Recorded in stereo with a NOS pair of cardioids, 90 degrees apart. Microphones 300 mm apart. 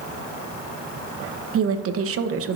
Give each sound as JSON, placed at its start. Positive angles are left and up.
{"t": 1.5, "sound": "a woman speaking", "azimuth_deg": -50, "distance_m": 0.9}